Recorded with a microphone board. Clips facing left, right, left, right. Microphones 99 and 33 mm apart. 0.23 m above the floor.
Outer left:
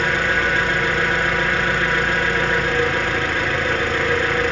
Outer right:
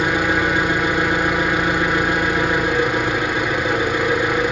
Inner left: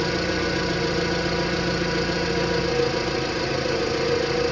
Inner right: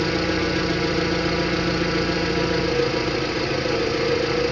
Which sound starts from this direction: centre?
An engine running, at 0.0 s.